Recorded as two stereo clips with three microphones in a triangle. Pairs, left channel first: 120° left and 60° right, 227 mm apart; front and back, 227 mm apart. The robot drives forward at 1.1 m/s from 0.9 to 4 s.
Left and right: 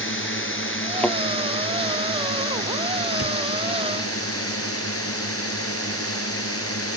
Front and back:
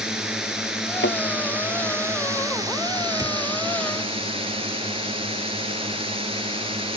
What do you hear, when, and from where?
0.0 s a drone: 95° left; by 7.0 s 115° left
1.0 s a thud: 35° left; by 1.2 s 40° left
3.2 s a cupboard door: 105° left